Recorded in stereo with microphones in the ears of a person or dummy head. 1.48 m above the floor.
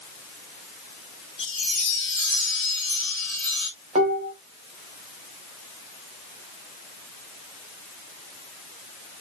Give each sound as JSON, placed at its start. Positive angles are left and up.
{"t": 1.4, "sound": "a chime", "side_deg": 5, "distance_m": 1.9}
{"t": 4.0, "sound": "dishes clattering", "side_deg": -35, "distance_m": 0.8}